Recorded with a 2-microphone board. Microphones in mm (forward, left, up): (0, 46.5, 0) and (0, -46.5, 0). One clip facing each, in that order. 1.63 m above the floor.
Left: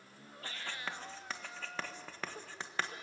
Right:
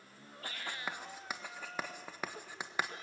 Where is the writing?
15° right (ahead or behind), 1.5 m.